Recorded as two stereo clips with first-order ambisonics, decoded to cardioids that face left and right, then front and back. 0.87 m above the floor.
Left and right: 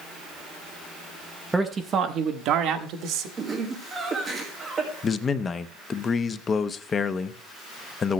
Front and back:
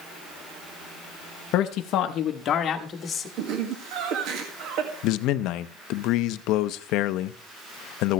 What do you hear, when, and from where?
1.5 s a man speaking: 5° right, 0.6 m; by 3.3 s 70° right, 1.3 m
3.4 s laughter: 160° right, 1.6 m
5.0 s a man speaking: 25° left, 0.6 m